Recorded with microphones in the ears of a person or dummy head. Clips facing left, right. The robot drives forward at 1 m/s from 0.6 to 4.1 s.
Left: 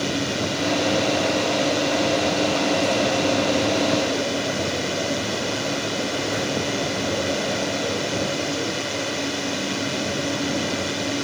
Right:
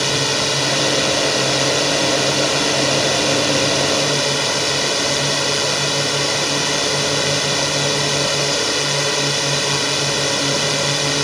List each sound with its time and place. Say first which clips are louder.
0.0 s a drone: right 2 dB; 75° right (ahead or behind); by 11.2 s 70° right (ahead or behind)